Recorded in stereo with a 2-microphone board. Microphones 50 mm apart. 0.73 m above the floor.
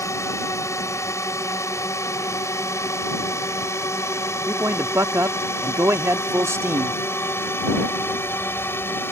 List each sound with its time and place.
0.0 s a drone: 70° left (ahead or behind); by 9.1 s 50° left (ahead or behind)
4.5 s a man speaking: 65° right (ahead or behind)